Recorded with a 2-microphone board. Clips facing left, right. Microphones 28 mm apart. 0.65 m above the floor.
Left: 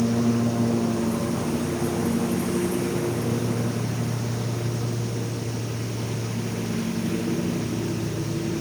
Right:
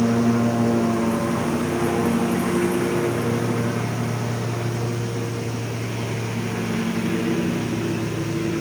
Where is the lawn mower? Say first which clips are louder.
Right 3 dB; 70° right (ahead or behind); by 8.6 s 80° right.